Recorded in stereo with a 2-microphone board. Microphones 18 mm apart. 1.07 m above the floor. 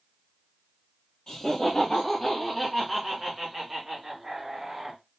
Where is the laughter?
45° left (ahead or behind), 0.9 m; by 5.0 s 50° right (ahead or behind), 1.6 m.